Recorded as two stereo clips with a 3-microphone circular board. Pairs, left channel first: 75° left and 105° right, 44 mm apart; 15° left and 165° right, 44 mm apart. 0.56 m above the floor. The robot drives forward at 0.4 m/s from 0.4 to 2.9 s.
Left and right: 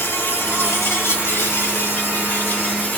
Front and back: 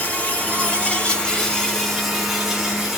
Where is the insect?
70° left, 1.2 m; by 3.0 s 120° left, 1.2 m.